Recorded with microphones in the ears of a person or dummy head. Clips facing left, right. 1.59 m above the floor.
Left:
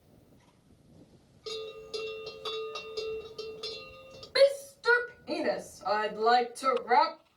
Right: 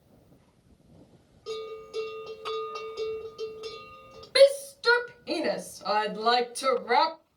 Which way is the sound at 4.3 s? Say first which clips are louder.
Right 5 dB; 50° right (ahead or behind).